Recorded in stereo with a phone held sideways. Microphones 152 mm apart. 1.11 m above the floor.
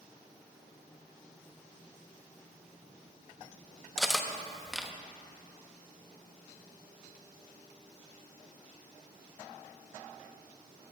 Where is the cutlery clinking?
Centre (ahead or behind), 0.6 m.